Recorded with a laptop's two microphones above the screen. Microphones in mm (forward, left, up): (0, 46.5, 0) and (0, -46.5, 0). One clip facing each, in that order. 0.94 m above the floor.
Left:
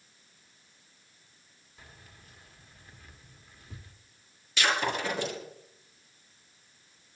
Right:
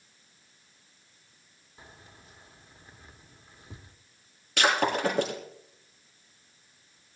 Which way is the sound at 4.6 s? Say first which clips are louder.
Right 4 dB; 60° right (ahead or behind).